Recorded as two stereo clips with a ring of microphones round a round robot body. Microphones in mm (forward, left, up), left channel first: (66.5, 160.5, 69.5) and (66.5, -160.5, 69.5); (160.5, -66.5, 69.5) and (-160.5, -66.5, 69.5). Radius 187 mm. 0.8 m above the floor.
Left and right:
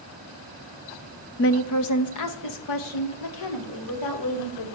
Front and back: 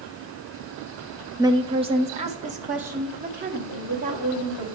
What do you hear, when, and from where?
1.4 s a woman speaking: 105° left, 0.7 m; by 4.7 s 110° left, 3 m